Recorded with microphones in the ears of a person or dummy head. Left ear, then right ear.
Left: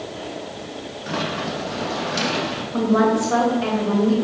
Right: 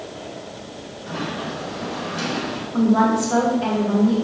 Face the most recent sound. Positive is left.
turn(degrees=15)  # may be behind; listen again after turning